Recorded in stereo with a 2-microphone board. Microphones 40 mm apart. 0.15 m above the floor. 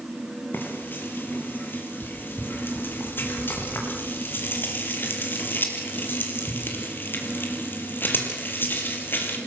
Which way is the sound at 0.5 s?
55° left (ahead or behind).